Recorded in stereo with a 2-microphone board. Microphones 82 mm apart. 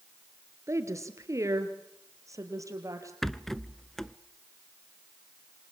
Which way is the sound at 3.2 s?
5° left (ahead or behind).